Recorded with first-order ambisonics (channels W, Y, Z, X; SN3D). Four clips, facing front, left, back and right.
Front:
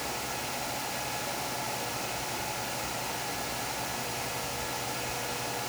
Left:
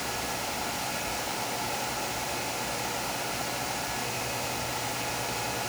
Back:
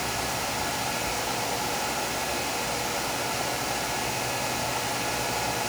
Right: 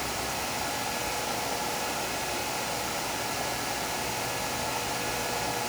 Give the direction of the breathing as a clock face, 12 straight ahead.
No breathing in this recording.